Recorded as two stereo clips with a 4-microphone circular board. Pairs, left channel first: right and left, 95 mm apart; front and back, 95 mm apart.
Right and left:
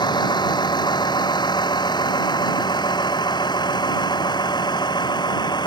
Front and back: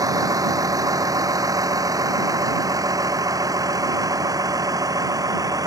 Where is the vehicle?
130° right.